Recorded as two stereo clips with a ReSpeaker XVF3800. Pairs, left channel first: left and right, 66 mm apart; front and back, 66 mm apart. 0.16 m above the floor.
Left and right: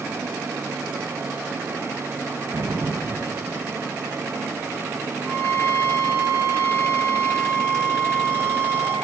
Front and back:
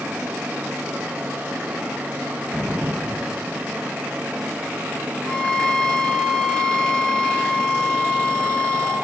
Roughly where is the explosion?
Right.